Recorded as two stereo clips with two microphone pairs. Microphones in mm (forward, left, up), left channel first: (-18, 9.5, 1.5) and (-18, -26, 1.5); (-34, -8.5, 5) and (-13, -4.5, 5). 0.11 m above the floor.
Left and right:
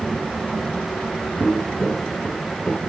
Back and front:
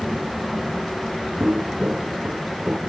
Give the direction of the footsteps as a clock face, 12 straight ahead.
11 o'clock.